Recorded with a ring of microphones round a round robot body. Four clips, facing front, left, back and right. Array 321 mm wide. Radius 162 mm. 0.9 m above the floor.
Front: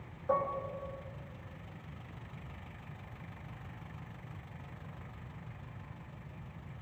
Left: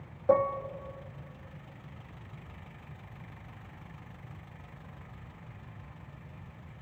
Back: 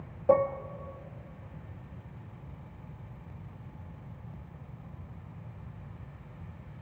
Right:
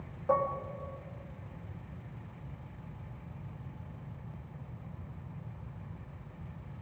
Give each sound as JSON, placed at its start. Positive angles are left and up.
{"t": 0.3, "sound": "dishes clattering", "azimuth_deg": 140, "distance_m": 1.2}